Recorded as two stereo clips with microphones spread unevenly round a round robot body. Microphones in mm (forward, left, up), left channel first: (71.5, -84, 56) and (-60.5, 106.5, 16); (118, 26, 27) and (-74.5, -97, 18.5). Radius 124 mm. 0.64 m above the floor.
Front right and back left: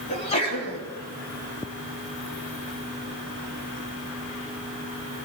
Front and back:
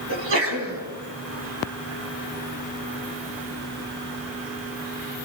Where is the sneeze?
120° right, 6 m.